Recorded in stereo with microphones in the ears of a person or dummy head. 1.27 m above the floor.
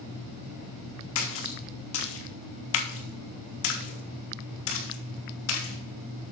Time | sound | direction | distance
1.1 | a splash | 65° left (ahead or behind) | 1.4 m